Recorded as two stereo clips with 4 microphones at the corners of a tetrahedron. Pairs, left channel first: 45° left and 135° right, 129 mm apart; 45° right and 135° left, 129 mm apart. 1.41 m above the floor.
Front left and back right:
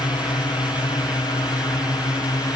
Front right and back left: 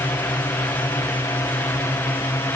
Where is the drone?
5° left.